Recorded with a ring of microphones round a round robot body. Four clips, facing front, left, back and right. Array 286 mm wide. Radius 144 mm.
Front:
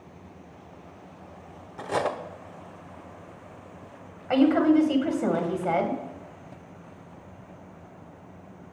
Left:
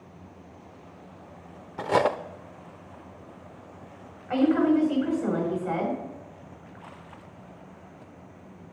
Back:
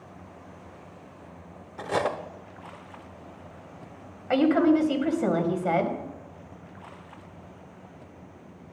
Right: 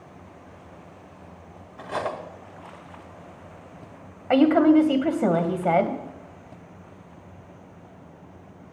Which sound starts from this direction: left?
Cutlery clinking, at 1.8 s.